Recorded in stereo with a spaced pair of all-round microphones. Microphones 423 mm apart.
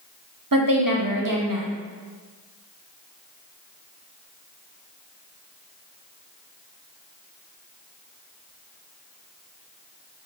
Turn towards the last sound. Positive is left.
turn(degrees=-50)  # may be behind; listen again after turning